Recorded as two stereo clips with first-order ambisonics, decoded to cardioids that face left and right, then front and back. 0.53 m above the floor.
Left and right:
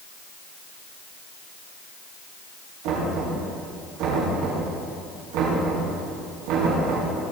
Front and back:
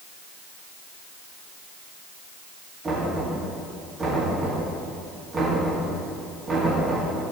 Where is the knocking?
110° right, 5 m.